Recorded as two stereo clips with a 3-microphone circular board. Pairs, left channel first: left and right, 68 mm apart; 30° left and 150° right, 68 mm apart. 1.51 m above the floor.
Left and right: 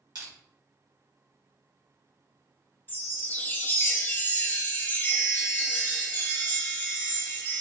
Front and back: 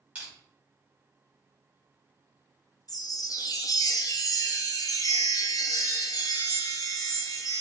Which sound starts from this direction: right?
Crushing, at 0.1 s.